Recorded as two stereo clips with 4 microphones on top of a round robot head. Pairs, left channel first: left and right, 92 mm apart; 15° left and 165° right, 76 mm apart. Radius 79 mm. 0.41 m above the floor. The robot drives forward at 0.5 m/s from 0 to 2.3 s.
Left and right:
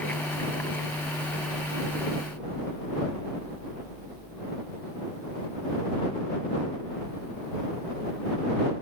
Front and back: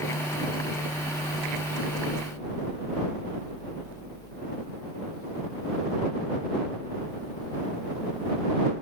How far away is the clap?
I don't hear a clap.